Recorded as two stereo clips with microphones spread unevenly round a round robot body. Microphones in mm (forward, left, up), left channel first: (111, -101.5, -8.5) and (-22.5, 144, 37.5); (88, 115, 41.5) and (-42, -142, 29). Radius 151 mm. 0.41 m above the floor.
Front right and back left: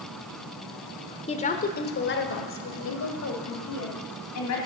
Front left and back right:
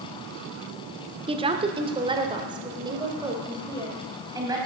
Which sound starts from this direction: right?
A woman speaking, at 1.3 s.